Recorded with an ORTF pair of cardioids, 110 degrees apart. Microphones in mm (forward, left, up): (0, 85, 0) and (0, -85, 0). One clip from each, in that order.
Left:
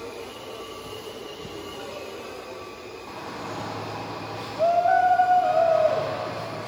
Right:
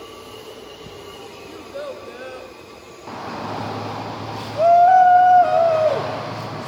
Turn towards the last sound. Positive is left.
turn(degrees=-40)